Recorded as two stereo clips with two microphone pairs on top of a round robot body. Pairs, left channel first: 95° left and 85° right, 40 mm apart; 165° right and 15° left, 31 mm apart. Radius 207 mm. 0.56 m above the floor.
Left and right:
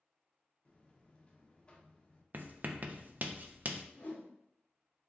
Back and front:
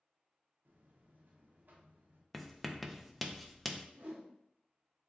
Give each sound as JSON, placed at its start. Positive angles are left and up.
{"t": 0.7, "sound": "a buzzer", "azimuth_deg": 30, "distance_m": 0.7}
{"t": 2.3, "sound": "writing", "azimuth_deg": -90, "distance_m": 0.5}
{"t": 4.0, "sound": "a whoosh", "azimuth_deg": 45, "distance_m": 0.7}